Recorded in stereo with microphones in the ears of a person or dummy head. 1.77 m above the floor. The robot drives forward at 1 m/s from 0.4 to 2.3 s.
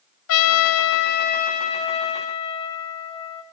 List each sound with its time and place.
0.3 s a trumpet: 75° left (ahead or behind), 0.8 m; by 3.4 s 25° left (ahead or behind), 1.9 m